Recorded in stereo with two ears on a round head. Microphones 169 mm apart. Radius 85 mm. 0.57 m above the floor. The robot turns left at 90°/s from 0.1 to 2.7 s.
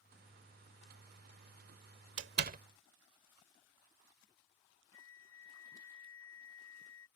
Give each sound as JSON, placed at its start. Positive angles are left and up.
{"t": 2.2, "sound": "a door slam", "side_deg": -75}
{"t": 4.9, "sound": "a flute", "side_deg": 85}